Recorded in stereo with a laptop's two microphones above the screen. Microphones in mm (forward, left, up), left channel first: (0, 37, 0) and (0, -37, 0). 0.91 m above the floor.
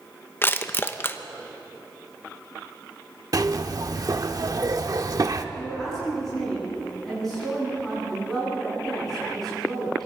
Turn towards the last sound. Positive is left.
turn(degrees=5)  # may be behind; listen again after turning